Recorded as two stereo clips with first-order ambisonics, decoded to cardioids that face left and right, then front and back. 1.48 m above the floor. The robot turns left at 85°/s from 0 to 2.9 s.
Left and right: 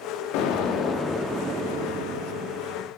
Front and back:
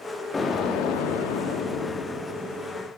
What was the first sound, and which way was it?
An explosion, 75° left.